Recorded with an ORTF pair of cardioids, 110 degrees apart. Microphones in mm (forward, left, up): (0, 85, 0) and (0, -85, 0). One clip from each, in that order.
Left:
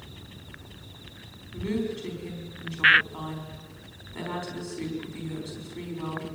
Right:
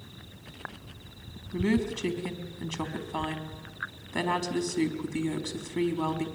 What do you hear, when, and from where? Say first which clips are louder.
1.5 s a woman speaking: right 2 dB; 65° right, 4 m